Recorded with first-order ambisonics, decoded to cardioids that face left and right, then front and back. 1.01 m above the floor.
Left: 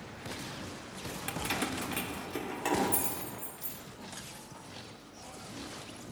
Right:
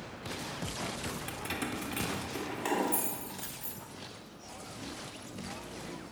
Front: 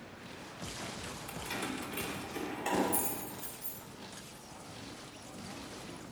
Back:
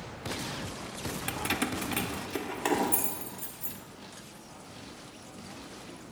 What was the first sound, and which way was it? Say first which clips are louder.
Keys jangling: left 6 dB, back 8 dB; 160° left.